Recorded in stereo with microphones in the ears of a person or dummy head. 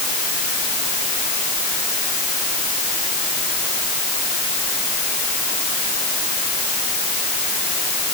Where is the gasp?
I don't hear a gasp.